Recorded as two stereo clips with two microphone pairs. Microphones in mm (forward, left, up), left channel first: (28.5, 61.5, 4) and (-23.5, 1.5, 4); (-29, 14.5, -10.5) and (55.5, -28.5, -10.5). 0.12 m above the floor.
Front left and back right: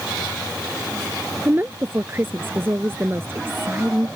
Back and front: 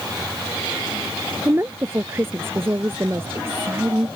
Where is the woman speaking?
80° right.